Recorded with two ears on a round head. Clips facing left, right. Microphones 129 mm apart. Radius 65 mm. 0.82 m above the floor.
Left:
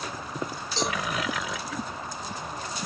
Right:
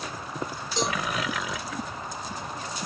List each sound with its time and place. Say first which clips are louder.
0.8 s a cowbell: right 1 dB; 15° right (ahead or behind), 0.9 m